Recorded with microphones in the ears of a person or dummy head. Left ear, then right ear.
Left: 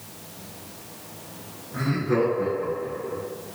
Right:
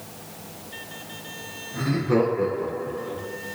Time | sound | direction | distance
1.7 | laughter | 20° left (ahead or behind) | 0.6 m